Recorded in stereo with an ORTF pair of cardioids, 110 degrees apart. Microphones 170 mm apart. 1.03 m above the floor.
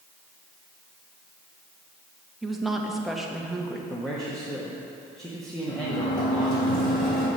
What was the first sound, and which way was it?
A woman speaking, straight ahead.